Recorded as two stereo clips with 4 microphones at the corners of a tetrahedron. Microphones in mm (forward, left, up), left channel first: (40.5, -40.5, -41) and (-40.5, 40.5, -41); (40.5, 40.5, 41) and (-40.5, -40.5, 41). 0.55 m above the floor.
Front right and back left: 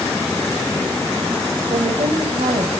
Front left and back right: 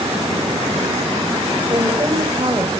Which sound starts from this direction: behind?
A woman speaking, at 1.7 s.